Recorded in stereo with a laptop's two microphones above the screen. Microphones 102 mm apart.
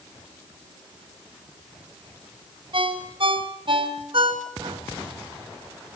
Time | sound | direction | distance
2.7 | a ringtone | 60° right (ahead or behind) | 3.5 m